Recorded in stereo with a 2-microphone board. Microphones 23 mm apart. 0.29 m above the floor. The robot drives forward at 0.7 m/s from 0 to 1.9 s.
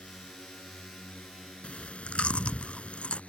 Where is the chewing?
90° left; by 3.2 s 75° left (ahead or behind).